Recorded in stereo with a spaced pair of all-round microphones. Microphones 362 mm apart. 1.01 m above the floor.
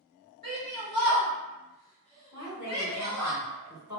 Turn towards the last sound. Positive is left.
turn(degrees=55)  # may be behind; listen again after turning